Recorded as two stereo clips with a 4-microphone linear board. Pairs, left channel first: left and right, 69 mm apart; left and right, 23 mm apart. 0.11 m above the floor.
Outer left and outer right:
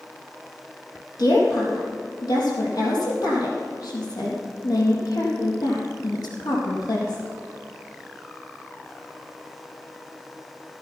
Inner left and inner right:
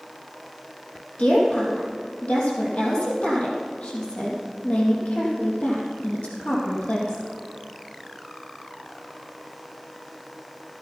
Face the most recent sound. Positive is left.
turn(degrees=65)  # may be behind; listen again after turning